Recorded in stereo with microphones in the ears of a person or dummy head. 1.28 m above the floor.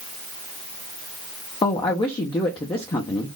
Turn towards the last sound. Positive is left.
turn(degrees=15)  # may be behind; listen again after turning